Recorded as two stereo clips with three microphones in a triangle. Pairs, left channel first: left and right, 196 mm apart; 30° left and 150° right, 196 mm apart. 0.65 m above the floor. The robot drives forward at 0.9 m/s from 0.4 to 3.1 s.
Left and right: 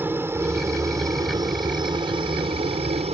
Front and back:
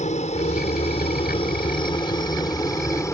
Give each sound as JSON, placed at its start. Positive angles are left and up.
{"t": 0.0, "sound": "a helicopter", "azimuth_deg": -15}